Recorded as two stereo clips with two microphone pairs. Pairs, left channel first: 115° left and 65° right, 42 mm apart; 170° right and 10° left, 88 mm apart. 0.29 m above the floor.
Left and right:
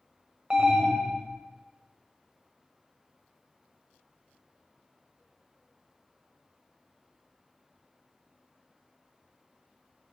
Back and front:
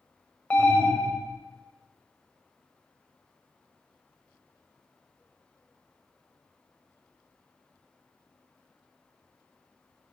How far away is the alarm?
About 0.7 m.